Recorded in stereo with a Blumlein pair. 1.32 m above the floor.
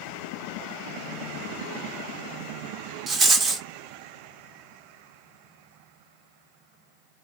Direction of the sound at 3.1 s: 20° right.